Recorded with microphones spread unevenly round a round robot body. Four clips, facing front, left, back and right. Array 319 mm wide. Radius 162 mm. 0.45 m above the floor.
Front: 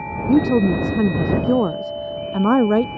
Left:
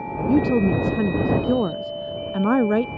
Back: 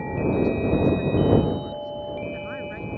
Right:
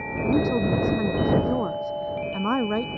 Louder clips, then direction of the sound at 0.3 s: Left 4 dB, front 7 dB; 15° left.